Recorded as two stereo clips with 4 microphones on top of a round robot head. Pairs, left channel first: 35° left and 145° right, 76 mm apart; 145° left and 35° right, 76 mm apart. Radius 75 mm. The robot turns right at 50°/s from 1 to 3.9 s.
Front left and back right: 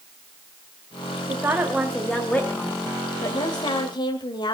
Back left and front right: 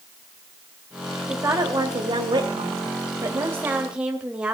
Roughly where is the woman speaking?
Right.